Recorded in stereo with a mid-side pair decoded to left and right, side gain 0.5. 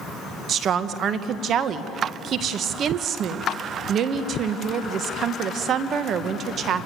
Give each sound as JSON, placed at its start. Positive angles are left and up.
{"t": 0.5, "sound": "a woman speaking", "azimuth_deg": -55, "distance_m": 1.5}